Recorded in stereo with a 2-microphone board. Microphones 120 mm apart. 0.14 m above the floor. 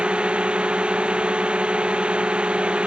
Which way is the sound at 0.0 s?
10° right (ahead or behind).